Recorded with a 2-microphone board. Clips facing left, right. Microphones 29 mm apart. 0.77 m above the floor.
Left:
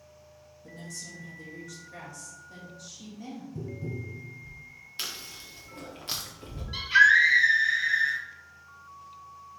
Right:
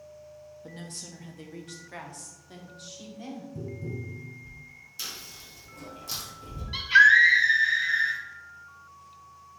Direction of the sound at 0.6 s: 40° right (ahead or behind).